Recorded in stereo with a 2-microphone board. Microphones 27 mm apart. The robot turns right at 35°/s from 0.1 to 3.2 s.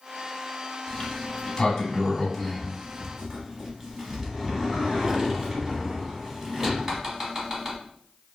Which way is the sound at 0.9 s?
40° left (ahead or behind).